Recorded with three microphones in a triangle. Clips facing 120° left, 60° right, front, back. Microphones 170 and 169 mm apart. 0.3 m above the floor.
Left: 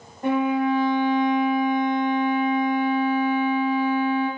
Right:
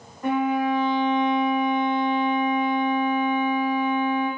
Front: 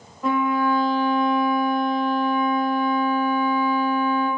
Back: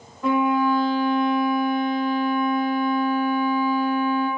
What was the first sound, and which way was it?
A violin, 85° left.